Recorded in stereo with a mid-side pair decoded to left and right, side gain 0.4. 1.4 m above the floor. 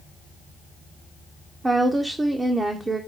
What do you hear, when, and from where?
1.6 s a woman speaking: 25° right, 0.6 m